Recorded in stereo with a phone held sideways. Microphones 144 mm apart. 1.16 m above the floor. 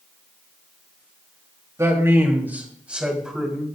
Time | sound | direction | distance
1.8 | a man speaking | 20° right (ahead or behind) | 2.5 m